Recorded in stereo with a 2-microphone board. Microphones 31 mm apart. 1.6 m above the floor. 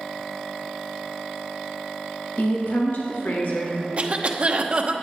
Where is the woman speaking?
70° left (ahead or behind), 1.6 m.